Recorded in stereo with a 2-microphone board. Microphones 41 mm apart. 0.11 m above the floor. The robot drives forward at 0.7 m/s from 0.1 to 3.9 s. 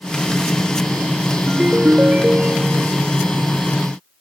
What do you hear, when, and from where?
1.5 s a ringtone: 40° right (ahead or behind); by 3.0 s 20° right (ahead or behind)